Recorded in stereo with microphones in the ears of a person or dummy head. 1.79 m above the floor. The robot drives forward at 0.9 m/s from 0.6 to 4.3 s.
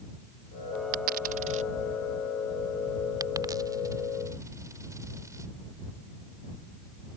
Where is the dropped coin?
40° right (ahead or behind); by 5.5 s 15° right (ahead or behind).